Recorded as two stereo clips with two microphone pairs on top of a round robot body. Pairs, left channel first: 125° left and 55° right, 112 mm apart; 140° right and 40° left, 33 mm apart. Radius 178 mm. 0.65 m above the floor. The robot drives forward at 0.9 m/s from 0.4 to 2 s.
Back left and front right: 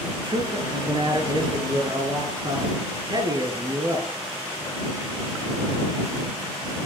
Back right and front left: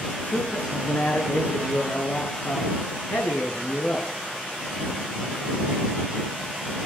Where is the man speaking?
100° right, 9.5 m; by 4.1 s 105° right, 10 m.